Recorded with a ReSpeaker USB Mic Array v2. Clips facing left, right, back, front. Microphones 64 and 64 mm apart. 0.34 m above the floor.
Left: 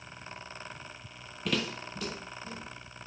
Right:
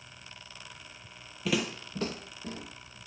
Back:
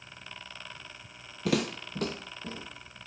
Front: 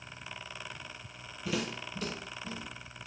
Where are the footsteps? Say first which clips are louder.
Right 2 dB, back 6 dB; 175° right, 0.6 m; by 3.0 s 120° right, 1.3 m.